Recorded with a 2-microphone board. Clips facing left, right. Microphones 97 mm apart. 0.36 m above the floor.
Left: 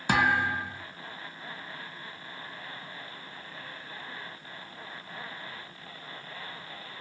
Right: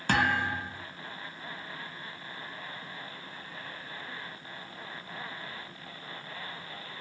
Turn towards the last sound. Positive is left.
turn(degrees=10)  # may be behind; listen again after turning